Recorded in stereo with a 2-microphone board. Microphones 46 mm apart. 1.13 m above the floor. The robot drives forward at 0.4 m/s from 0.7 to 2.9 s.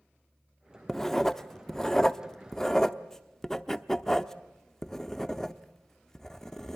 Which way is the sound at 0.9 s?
10° left (ahead or behind).